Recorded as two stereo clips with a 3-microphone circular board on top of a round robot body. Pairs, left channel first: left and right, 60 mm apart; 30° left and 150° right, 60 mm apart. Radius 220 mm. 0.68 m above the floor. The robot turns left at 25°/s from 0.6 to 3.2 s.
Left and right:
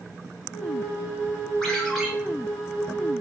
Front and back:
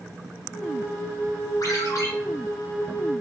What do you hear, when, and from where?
1.6 s a ringtone: 10° left, 1.5 m; by 2.1 s straight ahead, 1.5 m